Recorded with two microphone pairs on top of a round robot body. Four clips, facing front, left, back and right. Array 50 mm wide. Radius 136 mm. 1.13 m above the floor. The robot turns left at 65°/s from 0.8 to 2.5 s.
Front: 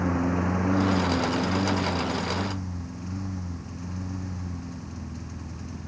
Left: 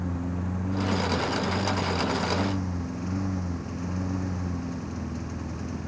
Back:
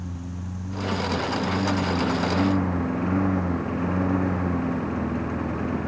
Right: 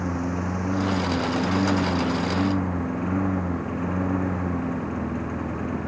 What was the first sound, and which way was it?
A lawn mower, 30° right.